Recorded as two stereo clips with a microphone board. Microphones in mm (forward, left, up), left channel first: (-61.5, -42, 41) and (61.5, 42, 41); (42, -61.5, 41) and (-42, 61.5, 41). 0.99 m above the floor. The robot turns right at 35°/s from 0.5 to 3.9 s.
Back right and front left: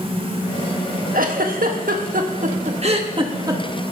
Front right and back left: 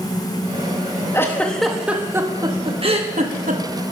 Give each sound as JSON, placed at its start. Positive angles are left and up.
{"t": 1.1, "sound": "a giggle", "azimuth_deg": 15, "distance_m": 1.5}